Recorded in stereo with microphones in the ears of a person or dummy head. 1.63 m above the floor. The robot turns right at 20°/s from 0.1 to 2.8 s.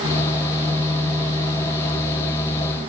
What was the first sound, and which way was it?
Only background noise.